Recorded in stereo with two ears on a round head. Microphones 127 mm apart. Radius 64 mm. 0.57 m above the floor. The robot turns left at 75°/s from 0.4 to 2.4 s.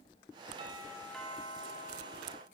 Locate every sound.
0.6 s a doorbell: 140° right, 5.5 m; by 2.4 s 85° left, 5.5 m